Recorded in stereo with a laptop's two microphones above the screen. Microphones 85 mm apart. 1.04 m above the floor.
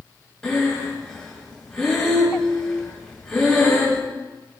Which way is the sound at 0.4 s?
10° left (ahead or behind).